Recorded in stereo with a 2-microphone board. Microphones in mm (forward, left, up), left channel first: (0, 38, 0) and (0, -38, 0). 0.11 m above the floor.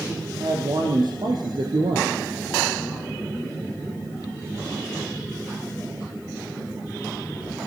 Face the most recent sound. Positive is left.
turn(degrees=-60)  # may be behind; listen again after turning